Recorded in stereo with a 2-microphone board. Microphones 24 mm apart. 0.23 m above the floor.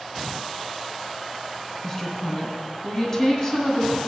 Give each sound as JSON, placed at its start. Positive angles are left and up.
{"t": 1.8, "sound": "a woman speaking", "side_deg": 35, "distance_m": 2.0}